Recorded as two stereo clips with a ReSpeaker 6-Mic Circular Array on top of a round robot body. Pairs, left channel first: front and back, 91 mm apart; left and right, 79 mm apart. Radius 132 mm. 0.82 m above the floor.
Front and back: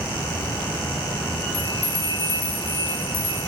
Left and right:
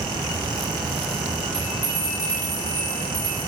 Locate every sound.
1.5 s a bell: 20° right, 1.9 m